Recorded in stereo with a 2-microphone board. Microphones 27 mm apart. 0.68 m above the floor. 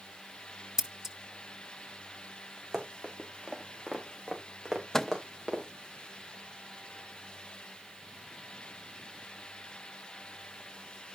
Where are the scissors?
15° right (ahead or behind), 1.3 m.